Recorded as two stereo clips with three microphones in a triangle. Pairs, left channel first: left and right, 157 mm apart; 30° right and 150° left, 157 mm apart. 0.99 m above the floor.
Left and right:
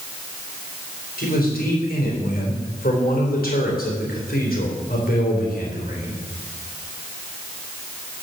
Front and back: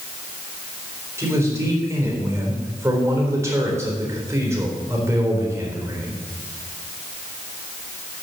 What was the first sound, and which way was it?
A man speaking, 80° left.